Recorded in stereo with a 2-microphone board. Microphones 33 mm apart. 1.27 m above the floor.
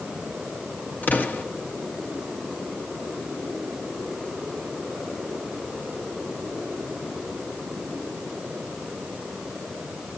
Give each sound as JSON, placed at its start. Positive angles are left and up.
{"t": 1.0, "sound": "an explosion", "side_deg": 75, "distance_m": 2.0}